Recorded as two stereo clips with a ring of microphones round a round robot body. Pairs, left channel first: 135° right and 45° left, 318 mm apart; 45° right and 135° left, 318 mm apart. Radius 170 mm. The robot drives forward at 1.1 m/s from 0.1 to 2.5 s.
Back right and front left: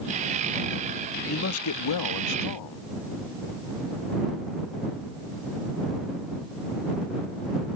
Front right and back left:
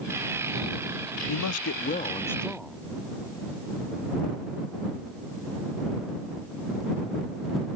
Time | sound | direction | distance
1.3 | a man speaking | 75° right | ?